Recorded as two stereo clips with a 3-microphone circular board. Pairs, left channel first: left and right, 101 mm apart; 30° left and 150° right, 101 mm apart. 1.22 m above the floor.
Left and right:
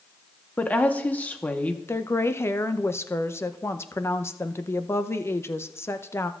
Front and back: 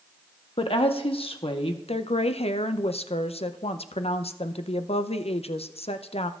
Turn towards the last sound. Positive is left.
turn(degrees=25)